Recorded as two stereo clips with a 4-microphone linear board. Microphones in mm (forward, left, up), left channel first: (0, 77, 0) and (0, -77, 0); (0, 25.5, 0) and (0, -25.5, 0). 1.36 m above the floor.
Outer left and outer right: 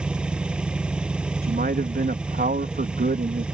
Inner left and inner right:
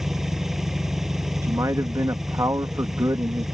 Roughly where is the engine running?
Centre.